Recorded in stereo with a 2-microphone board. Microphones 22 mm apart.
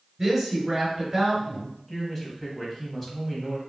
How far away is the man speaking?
About 1.2 m.